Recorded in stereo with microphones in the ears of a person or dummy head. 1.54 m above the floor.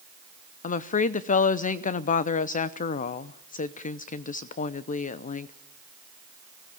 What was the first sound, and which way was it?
A woman speaking, 45° left (ahead or behind).